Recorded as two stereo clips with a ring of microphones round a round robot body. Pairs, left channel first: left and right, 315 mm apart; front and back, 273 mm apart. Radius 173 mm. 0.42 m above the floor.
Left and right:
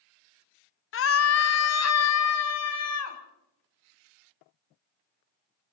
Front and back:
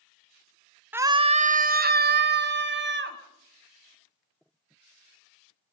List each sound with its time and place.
0.9 s a scream: 100° left, 0.8 m; by 3.2 s 130° left, 3 m